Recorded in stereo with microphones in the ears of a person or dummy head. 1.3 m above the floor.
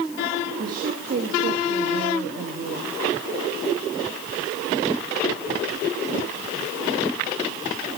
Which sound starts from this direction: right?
A woman speaking, at 0.6 s.